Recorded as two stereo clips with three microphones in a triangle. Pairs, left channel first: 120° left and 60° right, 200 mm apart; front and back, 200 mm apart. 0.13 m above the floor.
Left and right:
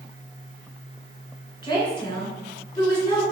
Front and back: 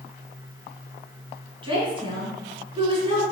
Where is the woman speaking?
155° left, 1.5 m.